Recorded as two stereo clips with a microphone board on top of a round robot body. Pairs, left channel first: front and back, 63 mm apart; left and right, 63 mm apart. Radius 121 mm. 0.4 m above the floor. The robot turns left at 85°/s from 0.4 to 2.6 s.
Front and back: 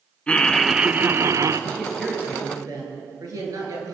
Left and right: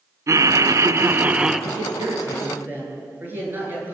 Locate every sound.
0.3 s laughter: 70° right, 1.5 m; by 1.6 s 175° right, 1.5 m
1.7 s a man speaking: 70° right, 9.5 m; by 3.9 s 145° right, 9.5 m